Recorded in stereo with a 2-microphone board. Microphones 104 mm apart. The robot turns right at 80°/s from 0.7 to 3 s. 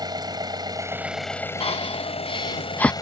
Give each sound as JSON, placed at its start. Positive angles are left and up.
{"t": 0.0, "sound": "an engine running", "azimuth_deg": -40}
{"t": 1.6, "sound": "breathing", "side_deg": 65}